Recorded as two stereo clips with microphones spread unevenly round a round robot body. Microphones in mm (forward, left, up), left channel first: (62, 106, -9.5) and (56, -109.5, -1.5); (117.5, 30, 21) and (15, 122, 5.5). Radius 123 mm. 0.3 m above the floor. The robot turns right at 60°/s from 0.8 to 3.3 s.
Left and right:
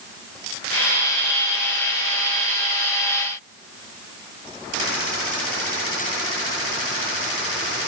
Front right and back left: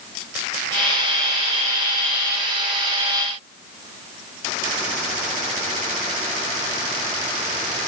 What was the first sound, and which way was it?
Only background noise.